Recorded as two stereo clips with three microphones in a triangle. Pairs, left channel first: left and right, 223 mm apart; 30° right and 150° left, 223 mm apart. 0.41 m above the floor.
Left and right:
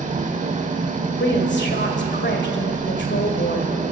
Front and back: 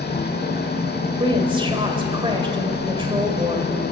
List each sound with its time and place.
0.0 s an engine running: 45° right, 1.3 m
1.2 s a woman speaking: 90° left, 1.8 m